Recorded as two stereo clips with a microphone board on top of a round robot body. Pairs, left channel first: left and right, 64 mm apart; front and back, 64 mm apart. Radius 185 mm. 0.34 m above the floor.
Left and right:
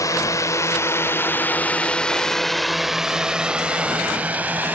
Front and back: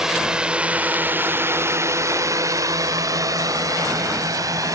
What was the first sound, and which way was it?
A drone, 100° left.